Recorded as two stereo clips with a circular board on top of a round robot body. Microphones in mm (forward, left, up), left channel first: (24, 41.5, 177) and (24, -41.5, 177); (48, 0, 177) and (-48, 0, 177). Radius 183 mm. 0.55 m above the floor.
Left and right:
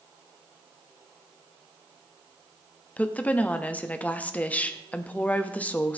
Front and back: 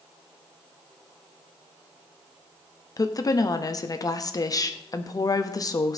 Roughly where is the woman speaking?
Ahead left.